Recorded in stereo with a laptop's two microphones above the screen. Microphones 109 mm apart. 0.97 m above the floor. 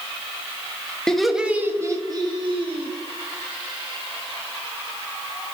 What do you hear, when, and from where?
1.1 s laughter: 5° left (ahead or behind), 0.9 m; by 2.9 s 55° right (ahead or behind), 1.4 m